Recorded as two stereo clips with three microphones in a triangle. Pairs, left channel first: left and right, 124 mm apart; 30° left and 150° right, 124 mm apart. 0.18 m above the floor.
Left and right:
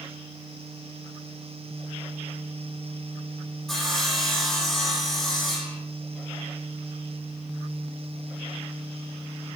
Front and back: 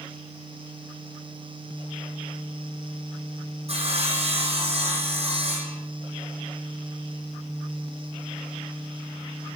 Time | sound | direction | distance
3.7 | sawing | straight behind | 7.5 m